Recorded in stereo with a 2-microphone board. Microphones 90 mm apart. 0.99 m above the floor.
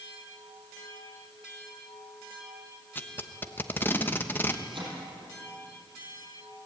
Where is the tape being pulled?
25° left (ahead or behind), 1.0 m.